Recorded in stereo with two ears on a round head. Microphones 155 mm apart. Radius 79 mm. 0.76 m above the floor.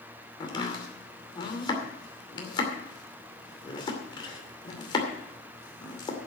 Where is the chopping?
30° left (ahead or behind), 2.5 m.